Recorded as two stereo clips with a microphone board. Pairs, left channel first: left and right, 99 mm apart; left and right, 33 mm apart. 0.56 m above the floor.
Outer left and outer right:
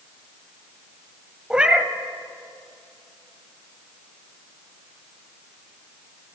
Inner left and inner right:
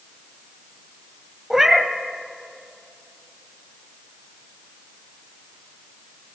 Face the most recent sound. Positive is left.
turn(degrees=-10)  # may be behind; listen again after turning